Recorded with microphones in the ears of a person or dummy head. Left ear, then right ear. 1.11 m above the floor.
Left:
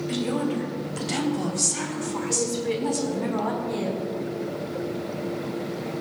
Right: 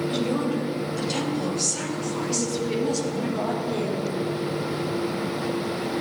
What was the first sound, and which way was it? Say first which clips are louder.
A woman speaking: right 2 dB; 60° left (ahead or behind).